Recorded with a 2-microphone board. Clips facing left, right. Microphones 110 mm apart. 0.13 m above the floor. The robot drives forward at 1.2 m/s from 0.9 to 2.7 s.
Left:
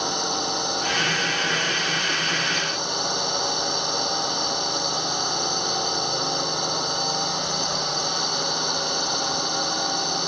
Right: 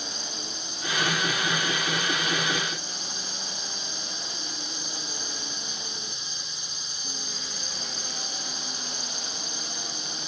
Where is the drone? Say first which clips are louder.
Left 13 dB; 75° left (ahead or behind).